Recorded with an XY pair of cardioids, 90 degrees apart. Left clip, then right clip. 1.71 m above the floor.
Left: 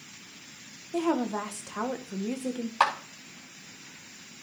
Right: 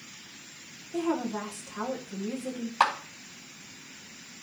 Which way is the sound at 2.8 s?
10° left.